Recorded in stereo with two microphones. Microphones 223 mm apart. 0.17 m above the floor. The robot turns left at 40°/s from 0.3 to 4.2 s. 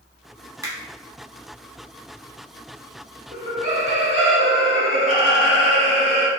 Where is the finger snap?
15° right (ahead or behind), 0.8 m.